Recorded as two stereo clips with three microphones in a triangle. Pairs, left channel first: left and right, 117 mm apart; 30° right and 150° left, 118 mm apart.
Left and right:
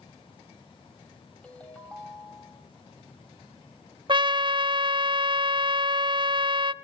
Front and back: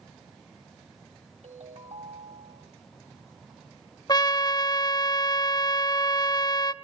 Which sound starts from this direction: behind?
A ringtone, at 1.4 s.